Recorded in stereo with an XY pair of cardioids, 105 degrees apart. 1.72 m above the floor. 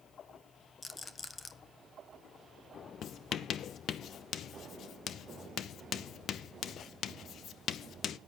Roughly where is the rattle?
Ahead left.